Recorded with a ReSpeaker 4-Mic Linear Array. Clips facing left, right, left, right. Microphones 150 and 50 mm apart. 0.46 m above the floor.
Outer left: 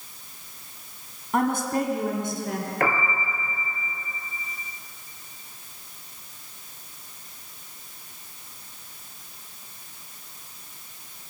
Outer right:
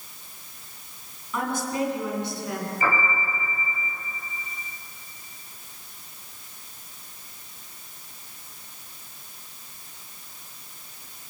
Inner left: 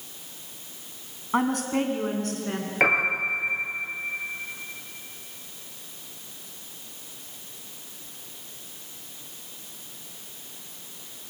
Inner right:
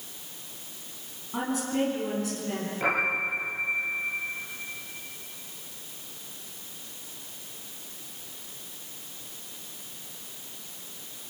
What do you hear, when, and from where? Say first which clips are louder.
1.3 s a woman speaking: outer left 4 dB, inner left 4 dB; 60° left (ahead or behind), 4 m; by 2.7 s 45° left (ahead or behind), 5.5 m
2.8 s a piano: outer left 1 dB, inner left 5 dB; 70° left (ahead or behind), 8.5 m